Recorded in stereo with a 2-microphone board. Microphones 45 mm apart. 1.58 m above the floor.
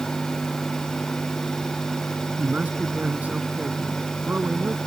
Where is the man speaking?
30° right (ahead or behind).